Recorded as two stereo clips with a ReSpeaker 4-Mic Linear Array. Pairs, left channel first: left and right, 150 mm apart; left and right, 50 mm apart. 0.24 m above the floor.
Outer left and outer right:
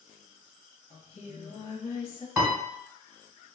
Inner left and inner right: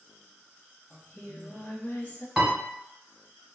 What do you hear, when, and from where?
0.9 s singing: 40° left (ahead or behind), 0.7 m
2.4 s a piano: 10° right (ahead or behind), 1.1 m